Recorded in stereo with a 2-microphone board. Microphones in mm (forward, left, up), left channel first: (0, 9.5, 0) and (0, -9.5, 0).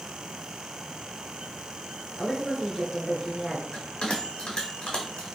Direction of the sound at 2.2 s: 15° right (ahead or behind).